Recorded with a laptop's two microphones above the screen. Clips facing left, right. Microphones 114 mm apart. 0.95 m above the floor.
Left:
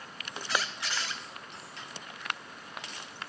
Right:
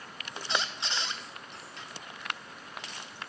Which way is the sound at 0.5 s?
25° right (ahead or behind).